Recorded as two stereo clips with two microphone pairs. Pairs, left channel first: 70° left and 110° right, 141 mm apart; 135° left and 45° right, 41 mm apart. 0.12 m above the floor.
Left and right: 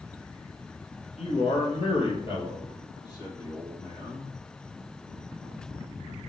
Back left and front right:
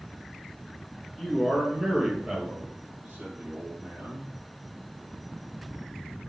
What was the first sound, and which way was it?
A man speaking, 40° left.